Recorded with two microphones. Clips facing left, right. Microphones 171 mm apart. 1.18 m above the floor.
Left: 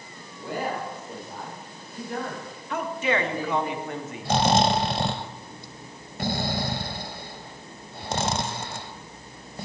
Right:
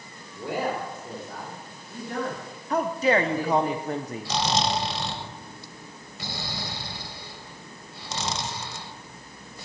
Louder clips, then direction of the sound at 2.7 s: Right 4 dB; 40° right (ahead or behind).